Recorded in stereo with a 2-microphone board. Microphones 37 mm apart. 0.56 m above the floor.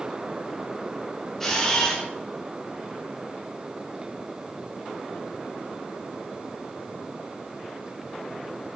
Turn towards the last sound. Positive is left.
turn(degrees=15)  # may be behind; listen again after turning